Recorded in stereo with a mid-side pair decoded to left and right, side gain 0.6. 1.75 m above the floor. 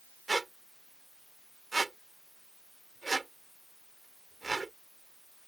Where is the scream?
I don't hear a scream.